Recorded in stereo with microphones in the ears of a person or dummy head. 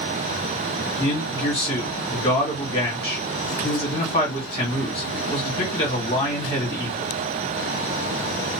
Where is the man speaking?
25° left (ahead or behind), 1.6 m.